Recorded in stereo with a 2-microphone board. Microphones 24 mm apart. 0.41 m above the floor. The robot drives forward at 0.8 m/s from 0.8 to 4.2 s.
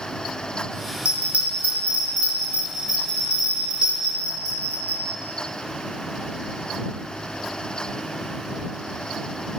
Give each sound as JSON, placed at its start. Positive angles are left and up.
{"t": 1.1, "sound": "a bell", "side_deg": -60, "distance_m": 2.5}